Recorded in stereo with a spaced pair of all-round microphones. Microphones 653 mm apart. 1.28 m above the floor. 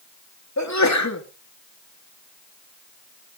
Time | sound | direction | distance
0.6 | a sneeze | 25° left (ahead or behind) | 2 m